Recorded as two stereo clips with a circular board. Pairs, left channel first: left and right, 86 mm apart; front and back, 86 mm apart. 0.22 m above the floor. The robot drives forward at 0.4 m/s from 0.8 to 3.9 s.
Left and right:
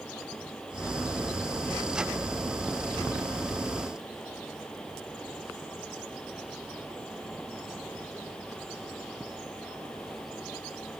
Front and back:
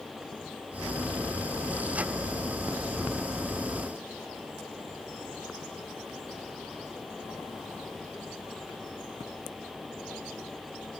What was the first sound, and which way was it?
Only background noise.